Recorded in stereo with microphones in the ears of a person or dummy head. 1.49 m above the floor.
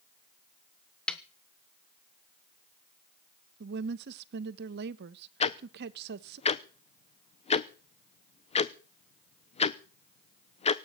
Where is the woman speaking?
60° right (ahead or behind), 1.2 m.